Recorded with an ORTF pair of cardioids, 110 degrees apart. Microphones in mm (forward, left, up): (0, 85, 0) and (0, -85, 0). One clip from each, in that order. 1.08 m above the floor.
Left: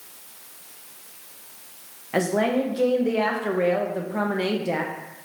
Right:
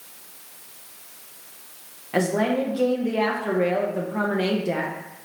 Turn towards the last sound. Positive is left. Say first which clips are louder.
# even
turn(degrees=5)